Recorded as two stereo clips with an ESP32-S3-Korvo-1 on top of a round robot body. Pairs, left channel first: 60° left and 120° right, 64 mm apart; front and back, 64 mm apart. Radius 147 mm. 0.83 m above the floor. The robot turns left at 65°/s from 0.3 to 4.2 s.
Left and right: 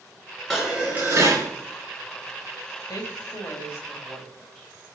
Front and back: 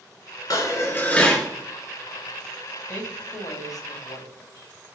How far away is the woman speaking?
About 1.9 m.